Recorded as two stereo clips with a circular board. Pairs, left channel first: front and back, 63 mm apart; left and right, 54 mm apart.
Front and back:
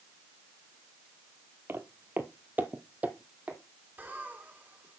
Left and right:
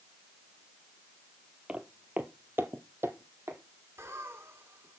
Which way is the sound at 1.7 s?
150° right.